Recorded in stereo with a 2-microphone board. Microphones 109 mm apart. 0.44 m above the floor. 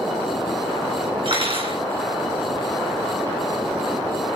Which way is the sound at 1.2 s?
50° right (ahead or behind).